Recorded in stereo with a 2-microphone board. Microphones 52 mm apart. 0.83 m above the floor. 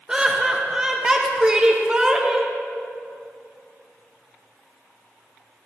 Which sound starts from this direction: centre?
Laughter, at 0.1 s.